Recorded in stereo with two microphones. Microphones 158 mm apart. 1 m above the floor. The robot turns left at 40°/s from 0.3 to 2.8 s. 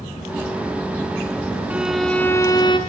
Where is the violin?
170° right, 3 m; by 2.8 s 145° left, 3 m.